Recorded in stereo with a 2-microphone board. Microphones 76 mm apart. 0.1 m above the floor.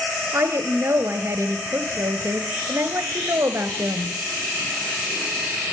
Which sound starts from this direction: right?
A woman speaking, at 0.3 s.